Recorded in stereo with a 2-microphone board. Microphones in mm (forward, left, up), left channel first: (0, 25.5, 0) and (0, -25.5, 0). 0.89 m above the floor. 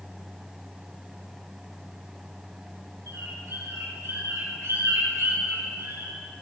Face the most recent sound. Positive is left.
turn(degrees=-80)